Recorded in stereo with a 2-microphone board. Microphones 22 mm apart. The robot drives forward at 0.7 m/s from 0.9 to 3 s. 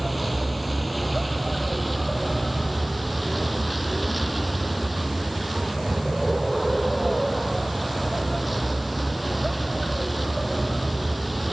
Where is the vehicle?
Centre (ahead or behind).